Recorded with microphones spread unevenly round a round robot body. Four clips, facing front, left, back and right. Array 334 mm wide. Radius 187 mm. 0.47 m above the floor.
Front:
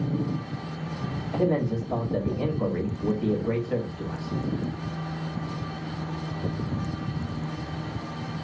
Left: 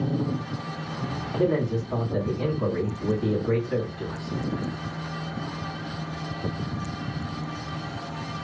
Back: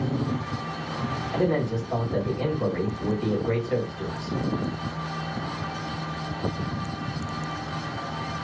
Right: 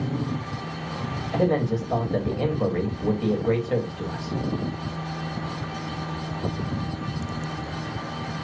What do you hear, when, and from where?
1.3 s a man speaking: 90° right, 3 m